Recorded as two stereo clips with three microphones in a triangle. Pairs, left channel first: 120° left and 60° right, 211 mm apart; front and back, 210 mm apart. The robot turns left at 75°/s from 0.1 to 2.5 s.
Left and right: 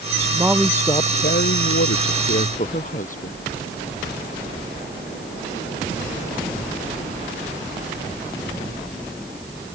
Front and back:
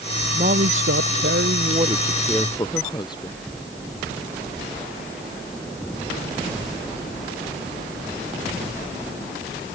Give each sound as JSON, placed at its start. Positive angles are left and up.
{"t": 0.3, "sound": "a woman speaking", "azimuth_deg": -130}